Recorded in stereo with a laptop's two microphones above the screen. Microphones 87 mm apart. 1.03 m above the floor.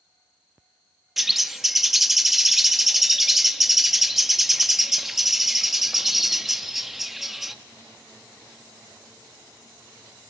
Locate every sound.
1.2 s a bird: centre (ahead or behind), 0.6 m